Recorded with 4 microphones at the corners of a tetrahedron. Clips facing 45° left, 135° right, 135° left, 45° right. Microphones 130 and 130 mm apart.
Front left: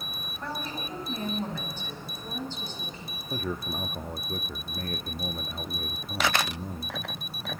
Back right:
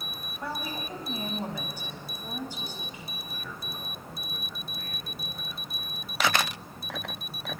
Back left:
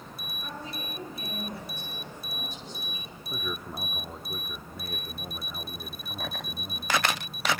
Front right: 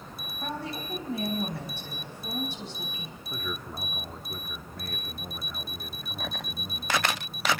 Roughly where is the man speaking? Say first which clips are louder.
Front left 13 dB, back left 1 dB; ahead left.